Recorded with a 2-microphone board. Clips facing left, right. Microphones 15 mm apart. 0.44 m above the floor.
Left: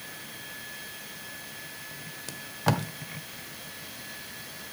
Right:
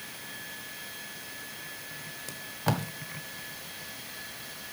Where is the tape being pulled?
15° left (ahead or behind), 1.1 m.